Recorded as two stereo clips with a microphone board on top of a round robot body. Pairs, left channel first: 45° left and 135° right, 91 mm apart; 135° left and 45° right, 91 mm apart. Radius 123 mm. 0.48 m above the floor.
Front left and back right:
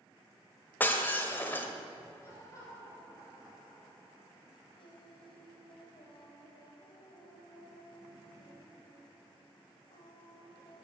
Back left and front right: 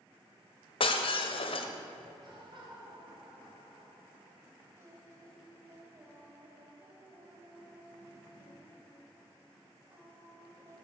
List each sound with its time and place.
0.8 s breaking glass: 115° left, 1.4 m
2.2 s laughter: 15° right, 3 m
4.8 s singing: 15° left, 2 m